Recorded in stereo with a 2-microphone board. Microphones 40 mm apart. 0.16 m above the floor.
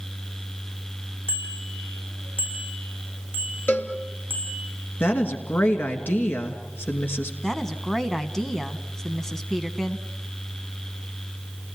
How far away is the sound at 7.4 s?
About 1.3 m.